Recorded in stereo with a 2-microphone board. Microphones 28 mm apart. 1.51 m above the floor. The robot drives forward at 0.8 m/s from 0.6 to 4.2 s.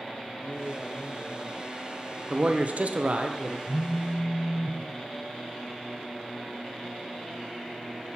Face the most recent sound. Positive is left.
turn(degrees=35)  # may be behind; listen again after turning